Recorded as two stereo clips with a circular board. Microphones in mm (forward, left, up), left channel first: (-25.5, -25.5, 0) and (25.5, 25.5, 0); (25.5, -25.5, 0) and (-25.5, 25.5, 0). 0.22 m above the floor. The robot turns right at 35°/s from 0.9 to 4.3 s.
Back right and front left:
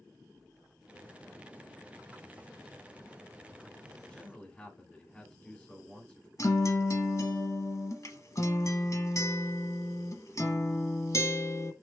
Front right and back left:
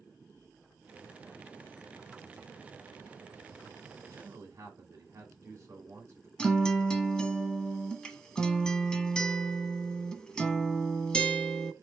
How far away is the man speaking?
About 1.9 m.